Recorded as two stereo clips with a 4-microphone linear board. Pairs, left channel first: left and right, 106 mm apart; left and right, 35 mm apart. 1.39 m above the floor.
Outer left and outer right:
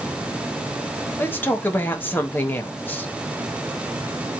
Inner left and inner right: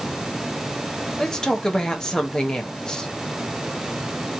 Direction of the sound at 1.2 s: 20° left (ahead or behind).